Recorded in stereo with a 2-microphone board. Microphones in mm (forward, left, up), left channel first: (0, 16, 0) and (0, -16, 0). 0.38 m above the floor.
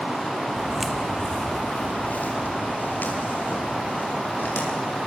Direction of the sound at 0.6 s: 15° right (ahead or behind).